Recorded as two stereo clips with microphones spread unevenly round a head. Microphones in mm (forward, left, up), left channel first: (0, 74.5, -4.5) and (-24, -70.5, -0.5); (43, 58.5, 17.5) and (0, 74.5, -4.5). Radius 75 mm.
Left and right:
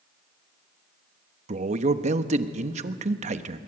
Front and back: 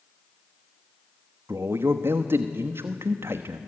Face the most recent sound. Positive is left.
turn(degrees=-145)